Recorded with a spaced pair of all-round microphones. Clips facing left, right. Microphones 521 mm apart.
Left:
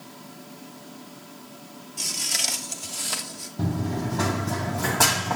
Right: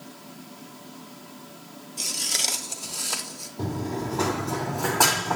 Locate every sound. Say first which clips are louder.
2.0 s footsteps: right 1 dB; 20° left (ahead or behind), 1.4 m; by 3.5 s 40° left (ahead or behind), 2.5 m
3.6 s running footsteps: left 2 dB; 30° left (ahead or behind), 2 m; by 5.4 s 40° left (ahead or behind), 3 m